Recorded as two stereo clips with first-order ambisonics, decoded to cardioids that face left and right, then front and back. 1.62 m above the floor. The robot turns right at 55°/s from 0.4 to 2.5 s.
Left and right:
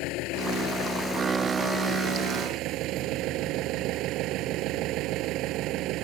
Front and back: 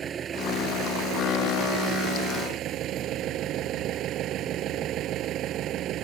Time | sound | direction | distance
0.0 | an engine running | 115° left | ?